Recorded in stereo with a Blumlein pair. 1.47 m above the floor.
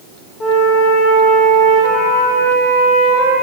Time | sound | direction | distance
0.4 | a flute | 30° left | 2 m